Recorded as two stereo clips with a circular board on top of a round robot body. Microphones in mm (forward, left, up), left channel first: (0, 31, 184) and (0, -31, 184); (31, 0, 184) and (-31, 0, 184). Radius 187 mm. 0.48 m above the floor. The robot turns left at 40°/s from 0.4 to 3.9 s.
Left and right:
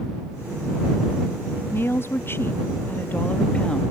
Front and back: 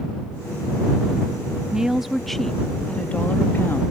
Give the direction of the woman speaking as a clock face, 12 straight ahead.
8 o'clock.